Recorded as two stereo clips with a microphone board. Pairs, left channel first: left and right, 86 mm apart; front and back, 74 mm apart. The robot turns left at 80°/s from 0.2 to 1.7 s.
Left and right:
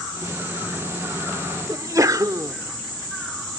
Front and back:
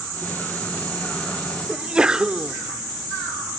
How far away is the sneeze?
About 1.0 m.